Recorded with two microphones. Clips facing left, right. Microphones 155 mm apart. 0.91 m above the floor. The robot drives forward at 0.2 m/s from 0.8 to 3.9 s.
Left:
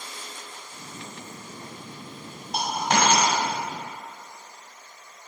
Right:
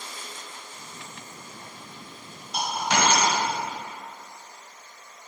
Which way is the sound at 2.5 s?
65° left (ahead or behind).